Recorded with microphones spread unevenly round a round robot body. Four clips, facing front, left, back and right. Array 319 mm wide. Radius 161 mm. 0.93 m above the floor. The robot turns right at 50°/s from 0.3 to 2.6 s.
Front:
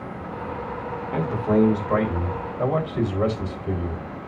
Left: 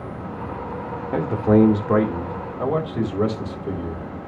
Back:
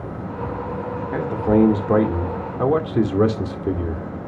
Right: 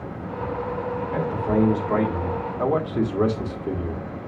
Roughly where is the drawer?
No drawer in this recording.